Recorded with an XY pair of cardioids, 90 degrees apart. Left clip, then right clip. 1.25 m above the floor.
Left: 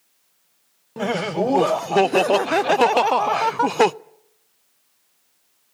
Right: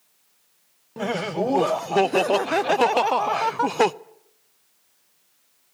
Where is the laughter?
25° left, 0.6 m.